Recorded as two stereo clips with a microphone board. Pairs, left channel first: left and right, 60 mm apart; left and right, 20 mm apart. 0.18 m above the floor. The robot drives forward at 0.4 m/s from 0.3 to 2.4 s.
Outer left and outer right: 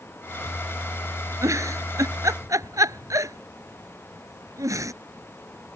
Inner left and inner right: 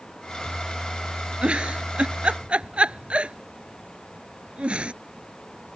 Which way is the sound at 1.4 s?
60° right (ahead or behind).